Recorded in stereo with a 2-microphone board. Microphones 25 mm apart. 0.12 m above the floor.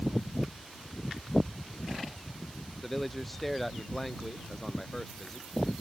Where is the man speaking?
5° left (ahead or behind).